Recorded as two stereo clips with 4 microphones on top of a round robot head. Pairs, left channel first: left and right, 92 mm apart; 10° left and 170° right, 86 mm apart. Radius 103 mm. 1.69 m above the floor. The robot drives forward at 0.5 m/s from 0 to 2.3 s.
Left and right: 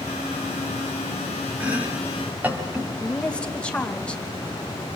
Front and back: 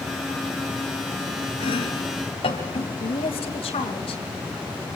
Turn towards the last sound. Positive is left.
turn(degrees=10)